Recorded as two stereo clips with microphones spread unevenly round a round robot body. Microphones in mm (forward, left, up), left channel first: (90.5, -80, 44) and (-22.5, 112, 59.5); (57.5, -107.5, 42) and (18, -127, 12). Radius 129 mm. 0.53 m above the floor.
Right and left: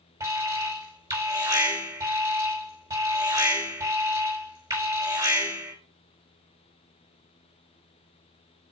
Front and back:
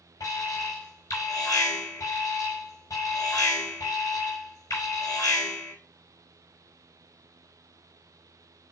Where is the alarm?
45° left, 5 m.